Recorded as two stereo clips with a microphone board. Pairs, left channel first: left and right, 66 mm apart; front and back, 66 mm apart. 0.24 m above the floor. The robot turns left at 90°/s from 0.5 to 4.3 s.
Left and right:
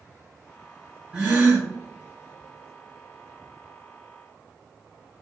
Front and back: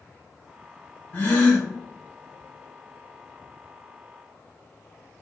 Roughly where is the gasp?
Ahead right.